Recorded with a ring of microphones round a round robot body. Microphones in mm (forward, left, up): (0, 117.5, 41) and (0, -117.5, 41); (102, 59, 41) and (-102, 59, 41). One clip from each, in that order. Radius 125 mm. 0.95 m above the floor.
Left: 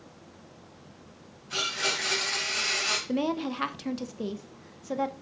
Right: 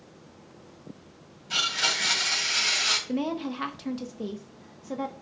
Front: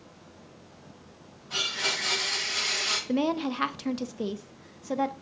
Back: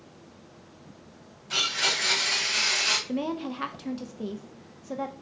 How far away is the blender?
About 3 m.